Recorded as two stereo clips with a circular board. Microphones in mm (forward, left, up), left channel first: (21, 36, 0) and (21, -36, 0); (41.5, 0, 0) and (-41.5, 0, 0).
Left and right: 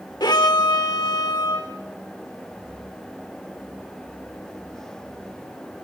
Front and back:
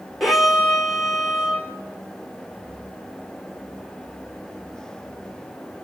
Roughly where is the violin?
Left.